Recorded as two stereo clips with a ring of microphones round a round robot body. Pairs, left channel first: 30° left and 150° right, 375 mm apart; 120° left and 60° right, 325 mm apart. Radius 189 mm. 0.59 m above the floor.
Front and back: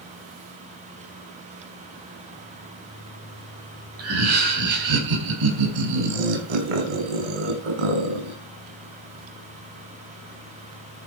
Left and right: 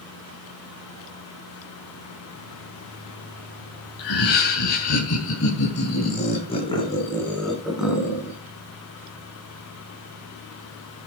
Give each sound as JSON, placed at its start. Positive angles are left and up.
{"t": 4.0, "sound": "laughter", "azimuth_deg": 155, "distance_m": 4.5}